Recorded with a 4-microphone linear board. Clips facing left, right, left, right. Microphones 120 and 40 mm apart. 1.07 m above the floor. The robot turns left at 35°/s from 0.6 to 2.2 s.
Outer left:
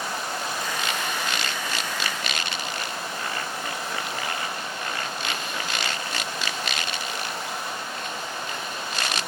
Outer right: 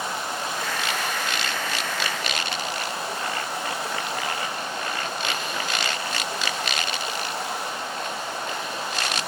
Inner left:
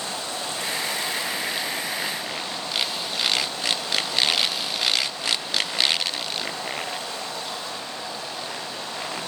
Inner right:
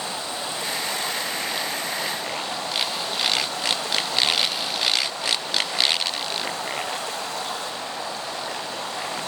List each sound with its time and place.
0.0 s running water: 25° right, 6 m; by 9.3 s 80° right, 6 m